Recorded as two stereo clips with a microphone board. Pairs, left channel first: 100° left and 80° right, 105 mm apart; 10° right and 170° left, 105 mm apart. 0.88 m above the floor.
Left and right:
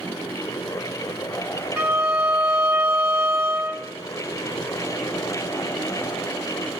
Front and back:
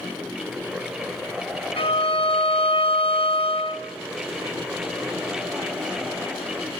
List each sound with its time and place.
1.8 s a violin: 10° right, 1.5 m